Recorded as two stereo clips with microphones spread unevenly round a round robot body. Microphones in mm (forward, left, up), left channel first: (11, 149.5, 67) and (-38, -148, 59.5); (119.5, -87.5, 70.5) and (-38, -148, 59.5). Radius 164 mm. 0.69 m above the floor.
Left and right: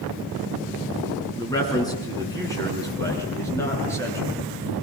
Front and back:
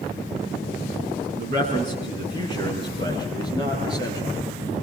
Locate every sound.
1.4 s a man speaking: 160° left, 7 m